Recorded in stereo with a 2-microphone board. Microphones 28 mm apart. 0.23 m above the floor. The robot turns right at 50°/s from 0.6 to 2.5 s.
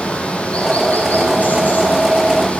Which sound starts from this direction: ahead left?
Running water, at 0.0 s.